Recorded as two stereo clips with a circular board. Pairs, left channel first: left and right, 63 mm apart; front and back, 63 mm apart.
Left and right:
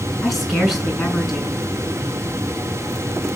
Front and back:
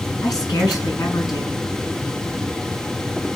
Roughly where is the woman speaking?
Ahead.